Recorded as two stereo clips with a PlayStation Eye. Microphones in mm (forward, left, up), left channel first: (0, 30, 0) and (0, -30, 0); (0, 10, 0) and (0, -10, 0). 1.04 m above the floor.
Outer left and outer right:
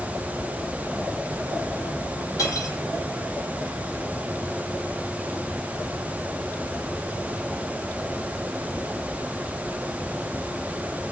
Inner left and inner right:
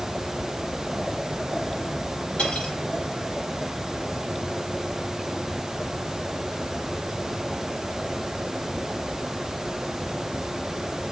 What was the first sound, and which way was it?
Cutlery clinking, 80° left.